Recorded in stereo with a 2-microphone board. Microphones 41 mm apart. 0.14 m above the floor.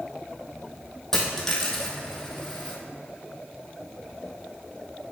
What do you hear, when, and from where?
1.1 s a dropped coin: 15° left (ahead or behind), 1.3 m